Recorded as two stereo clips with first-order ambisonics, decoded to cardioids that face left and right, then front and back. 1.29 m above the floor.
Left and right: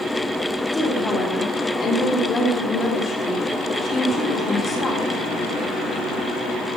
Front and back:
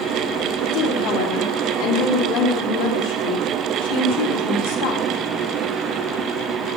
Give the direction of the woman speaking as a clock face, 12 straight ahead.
12 o'clock.